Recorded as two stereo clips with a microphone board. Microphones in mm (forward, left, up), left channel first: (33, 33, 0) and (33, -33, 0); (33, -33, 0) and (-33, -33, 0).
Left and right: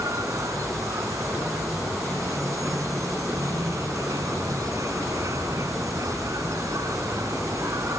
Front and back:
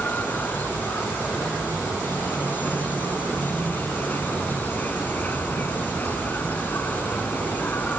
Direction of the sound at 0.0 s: 60° right.